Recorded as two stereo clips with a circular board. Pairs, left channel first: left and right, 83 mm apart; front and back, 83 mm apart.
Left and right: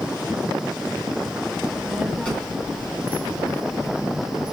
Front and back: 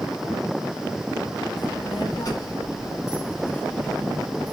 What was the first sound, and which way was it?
A child speaking, 10° left.